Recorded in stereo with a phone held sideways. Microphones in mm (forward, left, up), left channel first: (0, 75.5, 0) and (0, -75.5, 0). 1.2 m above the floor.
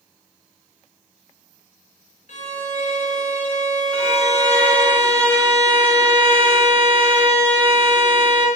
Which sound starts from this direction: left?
A violin, at 2.3 s.